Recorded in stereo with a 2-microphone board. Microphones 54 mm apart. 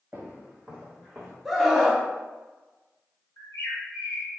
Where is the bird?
70° left (ahead or behind), 1.3 m.